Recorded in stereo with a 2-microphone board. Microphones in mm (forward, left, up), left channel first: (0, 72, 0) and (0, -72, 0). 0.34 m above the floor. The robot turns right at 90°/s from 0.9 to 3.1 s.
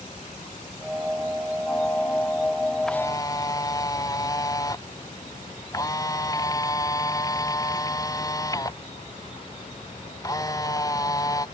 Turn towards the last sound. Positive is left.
turn(degrees=25)  # may be behind; listen again after turning